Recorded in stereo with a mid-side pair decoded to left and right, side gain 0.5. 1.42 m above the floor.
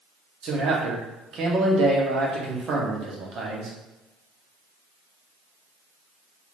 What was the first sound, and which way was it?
A man speaking, 60° right.